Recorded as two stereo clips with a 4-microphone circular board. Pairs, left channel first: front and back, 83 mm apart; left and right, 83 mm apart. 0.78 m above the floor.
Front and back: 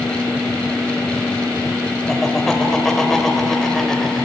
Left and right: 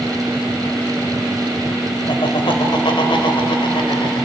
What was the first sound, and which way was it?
Laughter, 85° left.